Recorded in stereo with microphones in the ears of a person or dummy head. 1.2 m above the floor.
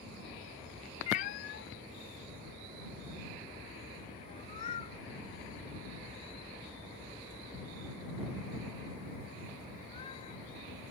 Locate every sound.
1.1 s a cat meowing: 35° left (ahead or behind)